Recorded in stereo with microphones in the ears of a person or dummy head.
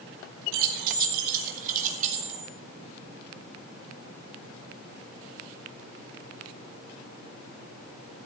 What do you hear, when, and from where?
0.5 s keys jangling: 60° right (ahead or behind), 1.2 m; by 2.5 s 45° right (ahead or behind), 2.5 m